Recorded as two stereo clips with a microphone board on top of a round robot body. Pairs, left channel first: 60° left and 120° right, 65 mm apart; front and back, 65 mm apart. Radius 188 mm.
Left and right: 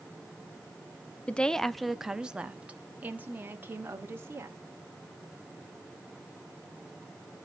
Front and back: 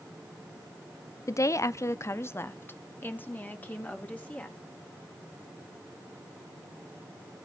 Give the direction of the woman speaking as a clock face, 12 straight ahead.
12 o'clock.